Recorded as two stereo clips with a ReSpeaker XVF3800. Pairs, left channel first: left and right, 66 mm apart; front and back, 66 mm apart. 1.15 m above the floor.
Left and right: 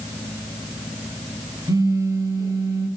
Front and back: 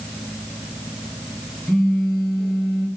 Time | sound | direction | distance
1.7 | a phone buzzing | 90° right | 7.5 m